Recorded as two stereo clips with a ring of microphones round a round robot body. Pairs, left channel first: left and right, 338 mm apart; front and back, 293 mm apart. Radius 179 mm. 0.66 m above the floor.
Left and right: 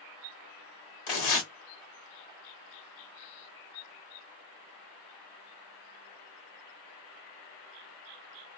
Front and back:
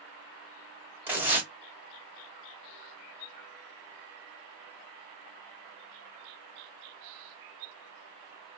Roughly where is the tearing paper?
Left.